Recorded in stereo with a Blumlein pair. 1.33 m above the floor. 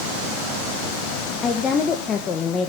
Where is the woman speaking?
20° left, 1.5 m.